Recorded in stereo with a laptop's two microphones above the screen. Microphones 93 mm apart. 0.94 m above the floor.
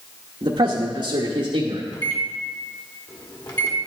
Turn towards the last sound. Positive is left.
turn(degrees=45)  # may be behind; listen again after turning